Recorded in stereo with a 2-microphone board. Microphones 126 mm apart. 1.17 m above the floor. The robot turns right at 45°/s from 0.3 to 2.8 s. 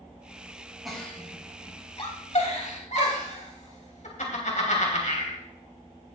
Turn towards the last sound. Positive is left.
turn(degrees=75)  # may be behind; listen again after turning